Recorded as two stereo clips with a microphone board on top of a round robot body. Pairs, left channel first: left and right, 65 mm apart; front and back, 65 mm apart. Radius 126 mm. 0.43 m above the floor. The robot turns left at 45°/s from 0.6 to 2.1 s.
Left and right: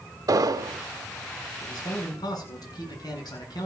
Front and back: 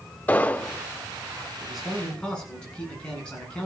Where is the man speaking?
100° left, 7 m; by 3.7 s 75° left, 7 m.